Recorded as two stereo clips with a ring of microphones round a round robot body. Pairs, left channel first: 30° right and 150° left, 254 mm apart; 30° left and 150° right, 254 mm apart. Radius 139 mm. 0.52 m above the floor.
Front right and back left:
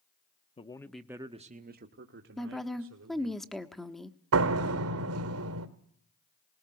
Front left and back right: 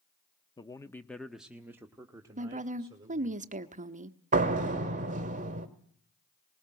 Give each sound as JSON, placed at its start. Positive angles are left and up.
{"t": 0.6, "sound": "a man speaking", "azimuth_deg": -15, "distance_m": 0.9}
{"t": 2.4, "sound": "a woman speaking", "azimuth_deg": -120, "distance_m": 1.0}
{"t": 4.3, "sound": "a door slam", "azimuth_deg": 155, "distance_m": 1.7}